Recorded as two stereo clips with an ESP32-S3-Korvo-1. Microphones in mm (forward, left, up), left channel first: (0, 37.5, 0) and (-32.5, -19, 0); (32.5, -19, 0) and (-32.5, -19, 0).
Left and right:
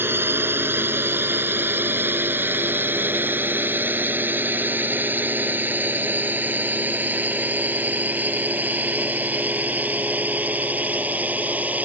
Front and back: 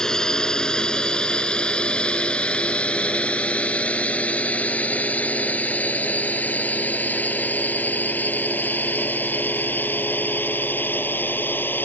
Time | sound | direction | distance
0.0 | a drone | 75° right | ?